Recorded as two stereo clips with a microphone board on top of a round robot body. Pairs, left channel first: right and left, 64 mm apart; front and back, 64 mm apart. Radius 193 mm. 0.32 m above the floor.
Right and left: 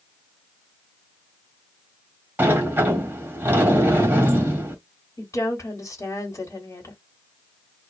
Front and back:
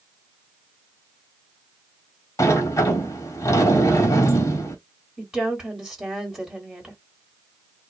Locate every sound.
2.4 s a sliding door: 30° left, 1.6 m
5.2 s a woman speaking: 105° right, 1.8 m